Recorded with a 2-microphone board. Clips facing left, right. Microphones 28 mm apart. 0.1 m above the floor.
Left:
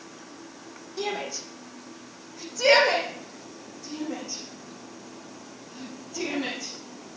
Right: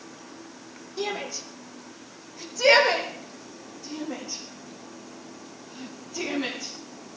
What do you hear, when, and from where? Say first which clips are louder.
1.0 s a shout: even; 5° right (ahead or behind), 3.5 m; by 6.7 s 10° right (ahead or behind), 7.5 m